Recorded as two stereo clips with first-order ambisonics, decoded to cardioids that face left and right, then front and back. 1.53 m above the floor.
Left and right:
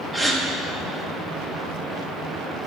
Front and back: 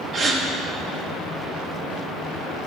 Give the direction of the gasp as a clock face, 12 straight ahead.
6 o'clock.